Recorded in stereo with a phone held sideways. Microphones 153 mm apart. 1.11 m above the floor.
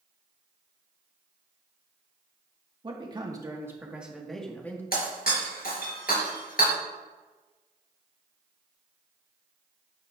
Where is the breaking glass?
75° left (ahead or behind), 3.5 m.